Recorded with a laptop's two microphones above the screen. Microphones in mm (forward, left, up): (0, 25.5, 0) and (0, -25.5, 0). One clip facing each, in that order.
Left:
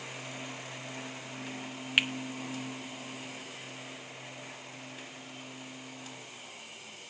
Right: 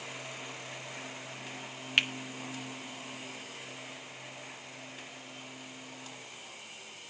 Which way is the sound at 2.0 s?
5° left (ahead or behind).